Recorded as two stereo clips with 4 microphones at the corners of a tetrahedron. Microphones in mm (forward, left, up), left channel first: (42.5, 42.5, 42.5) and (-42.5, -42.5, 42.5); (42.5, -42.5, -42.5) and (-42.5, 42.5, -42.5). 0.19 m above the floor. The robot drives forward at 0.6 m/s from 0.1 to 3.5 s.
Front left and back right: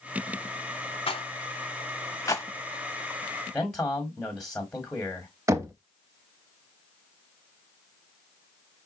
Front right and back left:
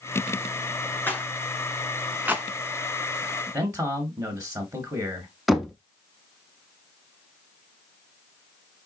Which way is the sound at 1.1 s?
25° left.